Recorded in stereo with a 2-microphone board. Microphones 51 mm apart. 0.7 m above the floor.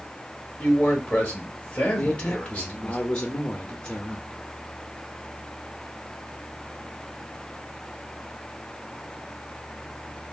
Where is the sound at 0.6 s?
30° left (ahead or behind), 0.9 m.